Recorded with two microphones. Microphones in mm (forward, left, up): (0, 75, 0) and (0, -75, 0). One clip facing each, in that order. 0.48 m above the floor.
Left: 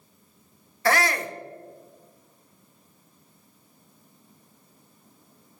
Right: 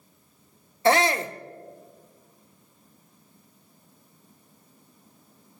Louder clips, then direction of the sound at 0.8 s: Right 3 dB; 25° right (ahead or behind).